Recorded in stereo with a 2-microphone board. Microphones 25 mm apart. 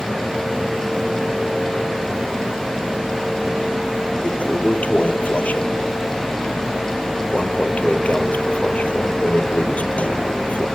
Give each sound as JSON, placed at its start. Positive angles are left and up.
{"t": 4.2, "sound": "a toilet flushing", "side_deg": 70}